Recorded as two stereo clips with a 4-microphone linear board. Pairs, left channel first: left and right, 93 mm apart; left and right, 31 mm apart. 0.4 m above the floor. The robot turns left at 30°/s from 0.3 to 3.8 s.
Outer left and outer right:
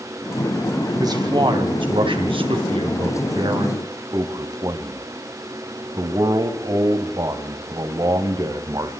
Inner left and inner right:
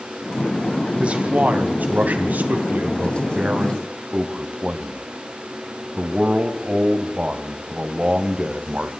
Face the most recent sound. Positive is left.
turn(degrees=-130)